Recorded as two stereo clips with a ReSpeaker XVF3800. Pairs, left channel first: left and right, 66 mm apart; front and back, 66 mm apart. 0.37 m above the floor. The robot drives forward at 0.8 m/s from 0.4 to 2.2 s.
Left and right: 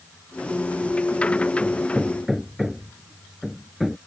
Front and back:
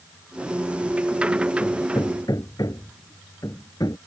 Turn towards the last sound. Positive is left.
turn(degrees=-5)